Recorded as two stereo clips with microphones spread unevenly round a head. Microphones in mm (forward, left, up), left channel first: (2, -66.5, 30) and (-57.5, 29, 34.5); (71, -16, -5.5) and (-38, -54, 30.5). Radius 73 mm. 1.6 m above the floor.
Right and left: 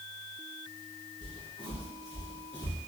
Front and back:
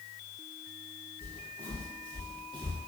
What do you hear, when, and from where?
1.2 s footsteps: 55° right, 1.9 m; by 2.8 s 110° right, 1.6 m